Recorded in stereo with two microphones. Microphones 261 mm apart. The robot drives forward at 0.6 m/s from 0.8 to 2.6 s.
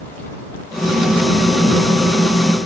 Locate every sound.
Only background noise.